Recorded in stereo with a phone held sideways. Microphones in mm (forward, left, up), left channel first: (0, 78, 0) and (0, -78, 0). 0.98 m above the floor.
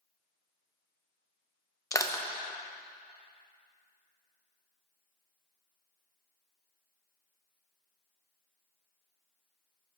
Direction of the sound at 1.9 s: 20° left (ahead or behind).